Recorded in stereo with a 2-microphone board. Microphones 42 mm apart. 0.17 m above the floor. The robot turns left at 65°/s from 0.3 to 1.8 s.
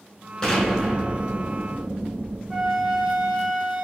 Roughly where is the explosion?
Ahead.